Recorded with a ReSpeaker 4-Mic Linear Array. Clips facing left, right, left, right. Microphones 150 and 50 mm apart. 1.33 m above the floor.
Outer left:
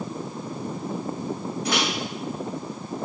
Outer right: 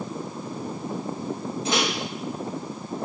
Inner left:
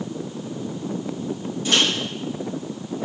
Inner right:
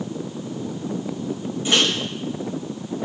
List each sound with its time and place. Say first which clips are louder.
1.6 s a microwave: outer right 1 dB, inner right 1 dB; 25° right (ahead or behind), 4.5 m